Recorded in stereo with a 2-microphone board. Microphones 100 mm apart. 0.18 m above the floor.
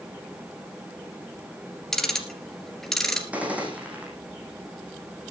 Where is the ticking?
5° left (ahead or behind), 2.5 m.